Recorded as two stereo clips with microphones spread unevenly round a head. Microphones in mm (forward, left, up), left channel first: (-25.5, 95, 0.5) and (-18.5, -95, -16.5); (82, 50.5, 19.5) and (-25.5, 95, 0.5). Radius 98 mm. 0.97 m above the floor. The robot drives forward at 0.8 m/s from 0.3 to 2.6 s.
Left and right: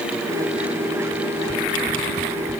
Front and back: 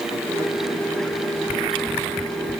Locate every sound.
Only background noise.